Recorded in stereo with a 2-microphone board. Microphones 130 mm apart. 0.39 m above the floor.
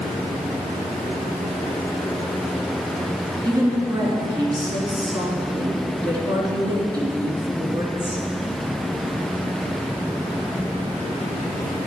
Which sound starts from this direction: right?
A woman speaking, at 3.4 s.